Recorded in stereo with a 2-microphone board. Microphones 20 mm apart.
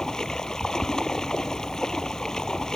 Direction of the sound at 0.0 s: 30° left (ahead or behind).